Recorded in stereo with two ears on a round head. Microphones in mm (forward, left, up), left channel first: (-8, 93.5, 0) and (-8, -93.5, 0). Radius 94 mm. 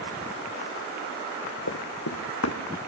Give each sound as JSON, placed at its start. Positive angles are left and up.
{"t": 1.7, "sound": "running footsteps", "side_deg": 70, "distance_m": 2.0}